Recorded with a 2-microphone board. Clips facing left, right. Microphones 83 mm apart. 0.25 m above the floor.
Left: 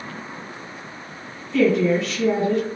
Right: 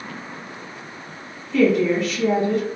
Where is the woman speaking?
Centre (ahead or behind), 1.4 m.